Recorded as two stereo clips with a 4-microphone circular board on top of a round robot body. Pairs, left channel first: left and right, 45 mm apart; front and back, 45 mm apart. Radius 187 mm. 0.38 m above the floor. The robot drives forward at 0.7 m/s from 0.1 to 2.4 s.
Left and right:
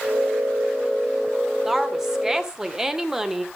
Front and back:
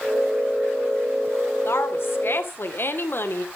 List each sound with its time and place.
1.6 s a woman speaking: 15° right, 2.5 m